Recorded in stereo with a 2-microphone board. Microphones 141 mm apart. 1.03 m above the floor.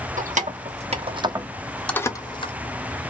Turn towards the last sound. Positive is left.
turn(degrees=40)  # may be behind; listen again after turning